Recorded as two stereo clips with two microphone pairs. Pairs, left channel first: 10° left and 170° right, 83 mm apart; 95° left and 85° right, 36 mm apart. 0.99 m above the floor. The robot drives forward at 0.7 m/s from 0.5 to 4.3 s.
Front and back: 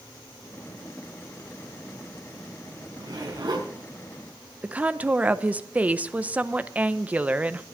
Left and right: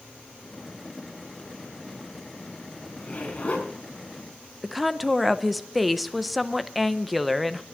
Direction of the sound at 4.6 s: 170° right.